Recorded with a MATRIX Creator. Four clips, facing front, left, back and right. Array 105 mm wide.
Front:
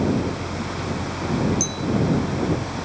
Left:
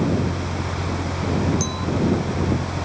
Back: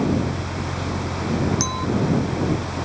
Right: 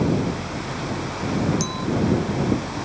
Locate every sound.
1.6 s a clink: 175° right